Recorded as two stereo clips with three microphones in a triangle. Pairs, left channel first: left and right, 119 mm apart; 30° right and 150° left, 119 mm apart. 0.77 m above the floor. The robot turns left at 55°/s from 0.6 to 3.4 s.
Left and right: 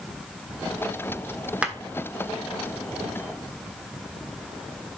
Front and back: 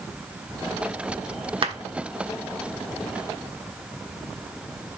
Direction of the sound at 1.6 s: 170° right.